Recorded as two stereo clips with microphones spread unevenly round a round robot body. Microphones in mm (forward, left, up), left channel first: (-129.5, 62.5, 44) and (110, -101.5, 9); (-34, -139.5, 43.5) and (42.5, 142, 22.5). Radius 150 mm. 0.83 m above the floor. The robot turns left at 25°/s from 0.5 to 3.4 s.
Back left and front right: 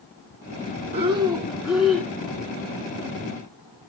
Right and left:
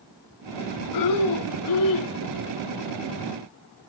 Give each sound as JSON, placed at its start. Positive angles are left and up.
{"t": 0.9, "sound": "breathing", "azimuth_deg": -100, "distance_m": 1.3}